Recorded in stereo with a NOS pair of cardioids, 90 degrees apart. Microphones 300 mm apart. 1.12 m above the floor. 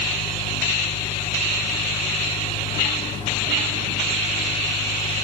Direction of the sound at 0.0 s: 20° left.